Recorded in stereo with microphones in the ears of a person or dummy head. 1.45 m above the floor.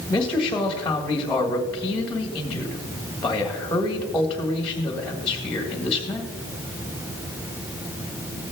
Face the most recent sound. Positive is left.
turn(degrees=5)  # may be behind; listen again after turning